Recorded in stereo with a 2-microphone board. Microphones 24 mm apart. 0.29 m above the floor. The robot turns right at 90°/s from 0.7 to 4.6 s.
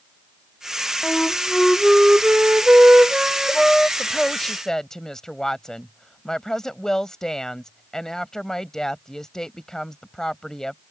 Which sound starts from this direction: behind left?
A flute, at 1.0 s.